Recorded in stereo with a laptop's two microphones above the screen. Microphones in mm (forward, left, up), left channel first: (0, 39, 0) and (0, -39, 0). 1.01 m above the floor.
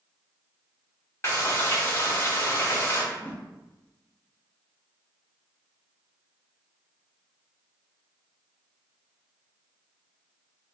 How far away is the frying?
About 1.2 m.